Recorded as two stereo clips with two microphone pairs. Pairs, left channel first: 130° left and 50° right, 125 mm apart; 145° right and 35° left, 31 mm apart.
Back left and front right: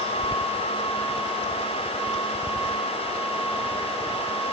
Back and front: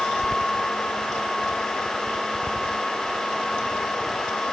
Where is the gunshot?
I don't hear a gunshot.